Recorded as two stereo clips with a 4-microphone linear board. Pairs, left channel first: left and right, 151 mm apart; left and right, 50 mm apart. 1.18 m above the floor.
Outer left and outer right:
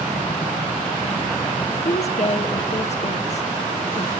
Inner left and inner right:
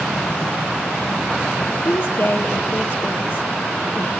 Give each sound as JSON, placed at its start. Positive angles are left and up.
{"t": 1.9, "sound": "a woman speaking", "side_deg": 50, "distance_m": 0.8}